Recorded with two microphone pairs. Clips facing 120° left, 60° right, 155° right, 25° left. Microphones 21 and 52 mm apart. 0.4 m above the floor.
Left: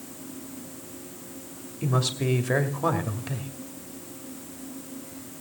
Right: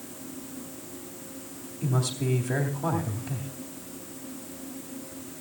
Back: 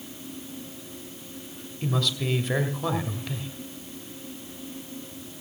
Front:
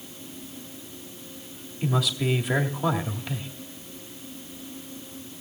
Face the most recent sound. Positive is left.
turn(degrees=105)